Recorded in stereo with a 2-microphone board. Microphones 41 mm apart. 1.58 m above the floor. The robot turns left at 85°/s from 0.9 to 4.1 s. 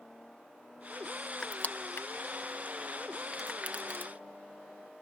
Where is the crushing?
25° left (ahead or behind); by 4.1 s 60° right (ahead or behind).